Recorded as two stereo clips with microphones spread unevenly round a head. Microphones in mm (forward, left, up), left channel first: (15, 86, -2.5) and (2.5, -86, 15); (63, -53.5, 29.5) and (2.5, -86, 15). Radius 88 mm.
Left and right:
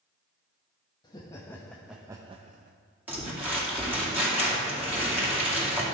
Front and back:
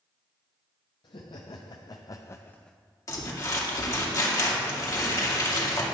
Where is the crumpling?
15° right, 2.5 m.